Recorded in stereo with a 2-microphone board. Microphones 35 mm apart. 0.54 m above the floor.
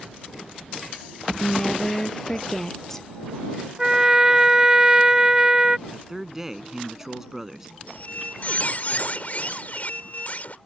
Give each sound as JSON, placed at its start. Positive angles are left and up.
{"t": 1.4, "sound": "a woman speaking", "side_deg": 10}
{"t": 3.8, "sound": "a trumpet", "side_deg": -15}
{"t": 5.9, "sound": "a man speaking", "side_deg": -10}
{"t": 7.9, "sound": "a squeak", "side_deg": 50}